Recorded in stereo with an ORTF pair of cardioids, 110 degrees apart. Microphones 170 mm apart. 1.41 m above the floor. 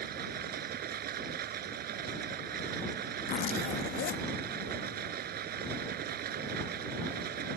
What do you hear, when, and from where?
0.0 s running water: 60° right
3.3 s a zipper: 60° left